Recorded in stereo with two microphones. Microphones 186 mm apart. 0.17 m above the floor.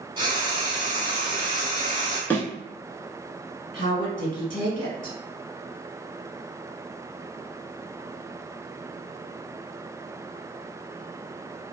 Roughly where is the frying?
Right.